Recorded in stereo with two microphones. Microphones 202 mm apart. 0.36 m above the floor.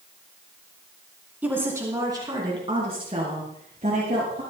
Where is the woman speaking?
10° right (ahead or behind), 3.5 m; by 4.4 s 40° right (ahead or behind), 7 m.